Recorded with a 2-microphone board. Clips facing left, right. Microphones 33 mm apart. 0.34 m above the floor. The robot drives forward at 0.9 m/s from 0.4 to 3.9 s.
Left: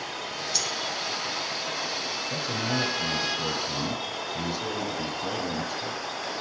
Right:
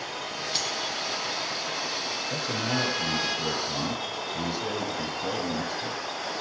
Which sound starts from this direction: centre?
A man speaking, at 2.3 s.